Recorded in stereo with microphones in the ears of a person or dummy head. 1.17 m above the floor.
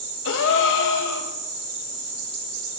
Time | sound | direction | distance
0.2 | a gasp | 65° left (ahead or behind) | 0.9 m